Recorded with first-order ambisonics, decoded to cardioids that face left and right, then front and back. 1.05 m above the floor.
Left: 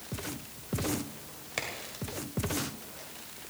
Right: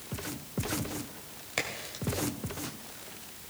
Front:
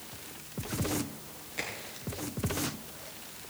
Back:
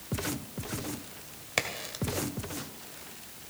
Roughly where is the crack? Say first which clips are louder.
Right 2 dB, back 7 dB; behind.